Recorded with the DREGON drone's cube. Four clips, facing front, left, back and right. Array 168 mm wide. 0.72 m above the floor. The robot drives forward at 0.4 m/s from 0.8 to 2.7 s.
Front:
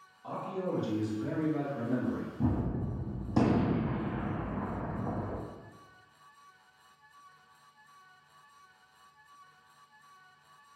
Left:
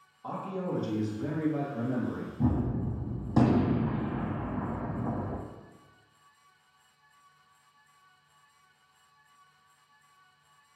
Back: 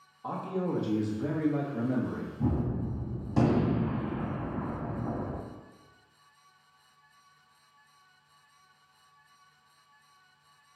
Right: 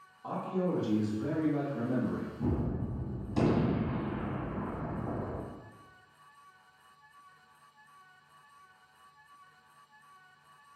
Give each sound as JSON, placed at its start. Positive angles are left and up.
{"t": 0.2, "sound": "a man speaking", "azimuth_deg": 160, "distance_m": 0.9}
{"t": 2.4, "sound": "a gunshot", "azimuth_deg": 60, "distance_m": 0.7}